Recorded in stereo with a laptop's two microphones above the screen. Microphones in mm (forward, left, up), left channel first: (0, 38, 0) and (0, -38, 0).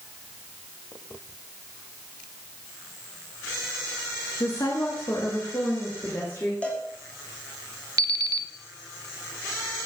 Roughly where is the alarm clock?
Right.